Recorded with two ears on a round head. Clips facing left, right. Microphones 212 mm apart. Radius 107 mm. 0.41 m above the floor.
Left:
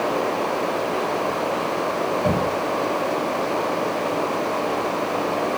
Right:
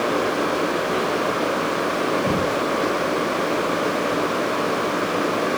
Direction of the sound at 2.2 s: 35° left (ahead or behind).